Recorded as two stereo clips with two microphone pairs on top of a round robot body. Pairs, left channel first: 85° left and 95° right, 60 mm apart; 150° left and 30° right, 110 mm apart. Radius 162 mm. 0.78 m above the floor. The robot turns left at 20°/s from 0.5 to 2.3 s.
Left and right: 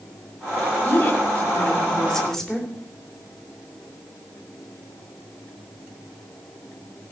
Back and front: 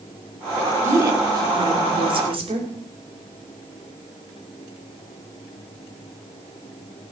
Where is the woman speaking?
30° left, 3.5 m; by 2.7 s straight ahead, 3.5 m.